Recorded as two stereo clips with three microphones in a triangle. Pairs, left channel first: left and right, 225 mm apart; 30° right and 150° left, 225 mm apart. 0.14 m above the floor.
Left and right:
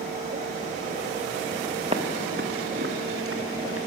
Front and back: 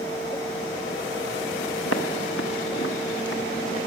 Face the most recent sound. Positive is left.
turn(degrees=-80)